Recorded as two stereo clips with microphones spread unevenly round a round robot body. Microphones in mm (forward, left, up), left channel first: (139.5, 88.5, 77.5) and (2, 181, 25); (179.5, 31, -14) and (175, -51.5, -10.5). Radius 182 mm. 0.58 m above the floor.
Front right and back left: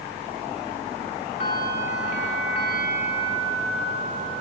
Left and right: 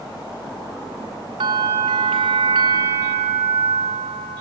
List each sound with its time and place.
1.4 s a bell: 100° right, 2.0 m